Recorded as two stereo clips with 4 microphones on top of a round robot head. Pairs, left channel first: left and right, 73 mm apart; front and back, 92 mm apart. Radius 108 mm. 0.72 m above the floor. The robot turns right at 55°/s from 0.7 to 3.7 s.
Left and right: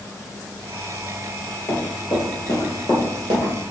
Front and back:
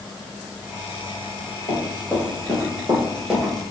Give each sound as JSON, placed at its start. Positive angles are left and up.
{"t": 1.7, "sound": "running footsteps", "azimuth_deg": 40, "distance_m": 1.1}